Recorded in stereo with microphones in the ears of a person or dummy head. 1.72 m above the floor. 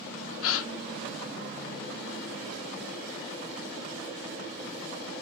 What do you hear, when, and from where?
0.4 s a gasp: 80° left, 0.9 m